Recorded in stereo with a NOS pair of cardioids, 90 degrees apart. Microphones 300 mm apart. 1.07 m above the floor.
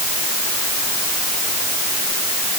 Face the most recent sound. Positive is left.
No sound to turn to.